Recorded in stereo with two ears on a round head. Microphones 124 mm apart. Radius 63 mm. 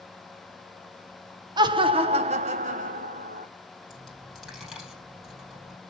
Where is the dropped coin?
Centre (ahead or behind), 3.5 m.